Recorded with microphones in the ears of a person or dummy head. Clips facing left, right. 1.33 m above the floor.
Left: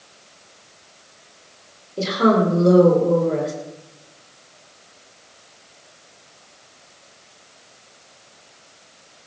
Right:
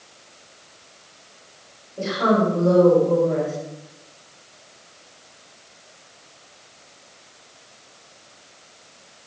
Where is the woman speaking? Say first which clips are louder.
Left 3 dB; 55° left (ahead or behind), 5.5 m.